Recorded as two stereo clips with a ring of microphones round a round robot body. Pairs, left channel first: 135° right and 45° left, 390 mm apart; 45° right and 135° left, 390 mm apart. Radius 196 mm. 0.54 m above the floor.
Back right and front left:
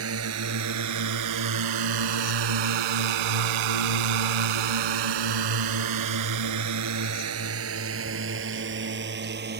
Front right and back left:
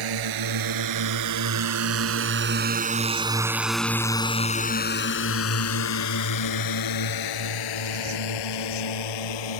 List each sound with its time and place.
0.0 s a drone: 100° left; by 9.6 s 20° right